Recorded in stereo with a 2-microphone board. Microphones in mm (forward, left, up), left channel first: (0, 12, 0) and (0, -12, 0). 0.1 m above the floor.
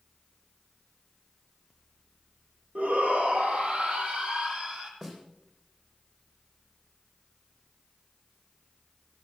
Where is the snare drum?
20° right (ahead or behind), 3.5 m.